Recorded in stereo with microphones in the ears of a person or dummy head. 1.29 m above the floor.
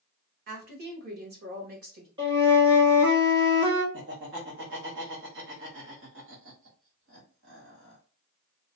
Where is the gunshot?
No gunshot in this recording.